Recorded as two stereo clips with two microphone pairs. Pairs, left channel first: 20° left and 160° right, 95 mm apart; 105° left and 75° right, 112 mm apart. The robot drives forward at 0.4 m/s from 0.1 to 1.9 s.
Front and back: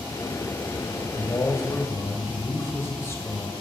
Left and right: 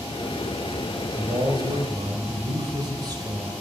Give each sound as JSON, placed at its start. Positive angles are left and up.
{"t": 1.1, "sound": "a man speaking", "azimuth_deg": -30, "distance_m": 2.0}